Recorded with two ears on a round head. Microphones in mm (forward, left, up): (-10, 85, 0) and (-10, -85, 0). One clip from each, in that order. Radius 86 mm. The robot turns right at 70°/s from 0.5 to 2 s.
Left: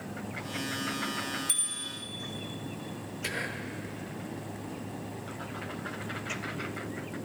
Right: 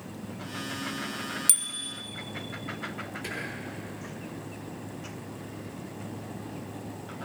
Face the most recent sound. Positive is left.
turn(degrees=20)  # may be behind; listen again after turning